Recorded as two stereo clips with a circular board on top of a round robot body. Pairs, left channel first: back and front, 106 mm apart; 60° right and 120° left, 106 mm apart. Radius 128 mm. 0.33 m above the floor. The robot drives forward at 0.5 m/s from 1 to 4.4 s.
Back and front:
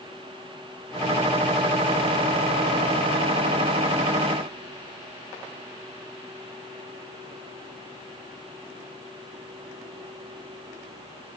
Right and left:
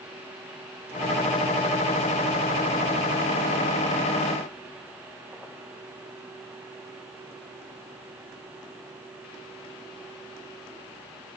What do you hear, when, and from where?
Only background noise.